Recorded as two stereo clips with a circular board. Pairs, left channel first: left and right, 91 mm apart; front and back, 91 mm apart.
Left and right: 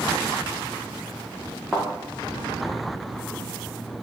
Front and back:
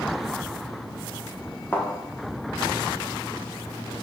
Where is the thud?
5° right, 0.7 m.